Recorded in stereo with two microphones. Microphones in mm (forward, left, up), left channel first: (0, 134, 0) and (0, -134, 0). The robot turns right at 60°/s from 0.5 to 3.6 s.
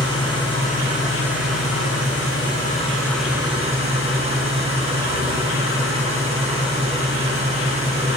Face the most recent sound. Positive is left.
turn(degrees=-155)